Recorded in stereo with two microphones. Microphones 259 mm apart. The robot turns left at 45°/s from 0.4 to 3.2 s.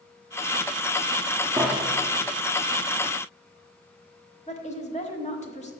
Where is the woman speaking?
25° left (ahead or behind), 1.1 m.